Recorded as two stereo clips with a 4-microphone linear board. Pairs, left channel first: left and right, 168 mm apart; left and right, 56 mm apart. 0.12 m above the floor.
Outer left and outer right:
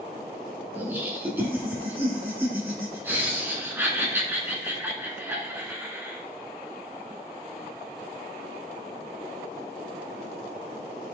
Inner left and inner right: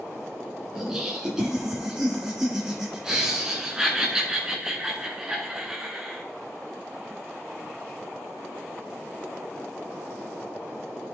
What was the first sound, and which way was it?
Laughter, 10° right (ahead or behind).